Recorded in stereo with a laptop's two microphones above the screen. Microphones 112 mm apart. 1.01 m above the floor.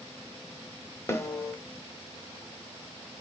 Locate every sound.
1.1 s a snare drum: 25° left (ahead or behind), 0.8 m